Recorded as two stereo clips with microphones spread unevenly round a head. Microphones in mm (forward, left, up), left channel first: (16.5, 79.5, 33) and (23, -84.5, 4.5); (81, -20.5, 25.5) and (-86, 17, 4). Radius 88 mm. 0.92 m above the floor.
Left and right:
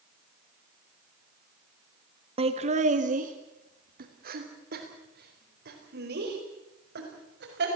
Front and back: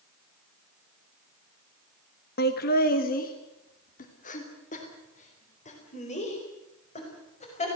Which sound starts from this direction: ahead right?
Laughter, at 2.4 s.